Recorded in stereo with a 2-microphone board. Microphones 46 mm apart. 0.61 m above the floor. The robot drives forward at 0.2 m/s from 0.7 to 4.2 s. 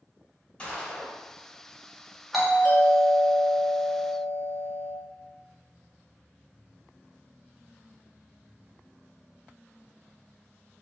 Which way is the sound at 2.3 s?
Centre (ahead or behind).